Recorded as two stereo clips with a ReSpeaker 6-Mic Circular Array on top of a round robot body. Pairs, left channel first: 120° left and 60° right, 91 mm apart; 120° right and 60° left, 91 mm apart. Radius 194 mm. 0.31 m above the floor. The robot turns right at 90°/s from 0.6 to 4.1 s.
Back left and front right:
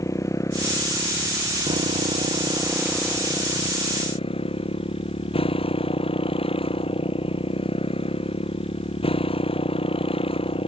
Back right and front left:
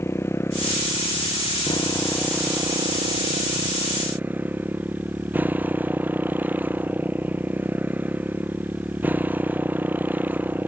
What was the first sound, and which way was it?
A motorcycle, 175° left.